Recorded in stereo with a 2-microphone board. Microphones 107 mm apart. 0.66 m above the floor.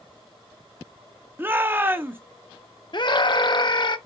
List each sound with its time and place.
1.4 s a shout: 20° right (ahead or behind), 0.7 m
2.9 s a scream: 45° left (ahead or behind), 0.7 m